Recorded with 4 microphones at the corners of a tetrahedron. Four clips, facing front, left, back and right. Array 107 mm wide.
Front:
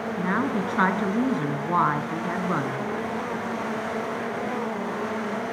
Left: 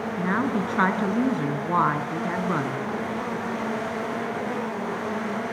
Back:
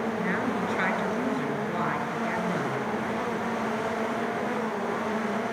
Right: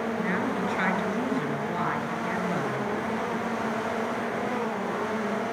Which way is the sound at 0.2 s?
45° left.